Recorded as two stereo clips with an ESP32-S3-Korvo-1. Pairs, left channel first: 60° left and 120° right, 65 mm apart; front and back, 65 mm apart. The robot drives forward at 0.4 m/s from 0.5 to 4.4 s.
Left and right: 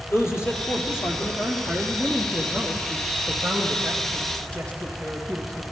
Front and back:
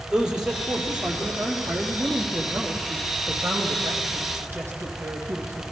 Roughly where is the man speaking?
Left.